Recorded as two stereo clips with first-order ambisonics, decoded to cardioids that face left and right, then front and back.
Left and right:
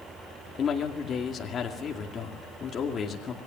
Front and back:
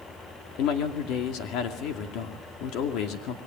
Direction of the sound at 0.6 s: 30° left.